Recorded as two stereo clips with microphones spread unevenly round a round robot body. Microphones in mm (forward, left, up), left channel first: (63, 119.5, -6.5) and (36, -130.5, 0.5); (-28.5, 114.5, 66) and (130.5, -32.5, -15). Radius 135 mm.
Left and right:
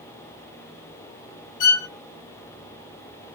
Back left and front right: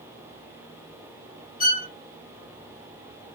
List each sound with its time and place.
1.6 s a violin: 80° left, 0.9 m